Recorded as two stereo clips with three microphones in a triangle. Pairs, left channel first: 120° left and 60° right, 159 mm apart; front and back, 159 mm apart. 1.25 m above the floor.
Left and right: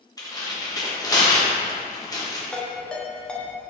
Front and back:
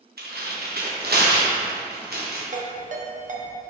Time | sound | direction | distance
0.2 | tearing paper | 175° right | 1.1 m
2.5 | a ringtone | 155° right | 0.9 m